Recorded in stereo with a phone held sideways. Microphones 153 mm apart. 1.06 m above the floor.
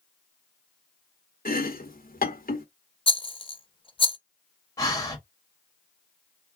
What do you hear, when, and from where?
1.4 s chopping: 70° left (ahead or behind), 0.9 m
3.1 s a rattle: 35° left (ahead or behind), 0.5 m
4.8 s breathing: 25° left (ahead or behind), 1.5 m